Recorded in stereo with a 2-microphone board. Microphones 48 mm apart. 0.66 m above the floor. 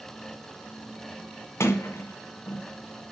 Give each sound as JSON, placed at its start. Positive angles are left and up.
{"t": 1.6, "sound": "a sliding door", "side_deg": 80, "distance_m": 1.6}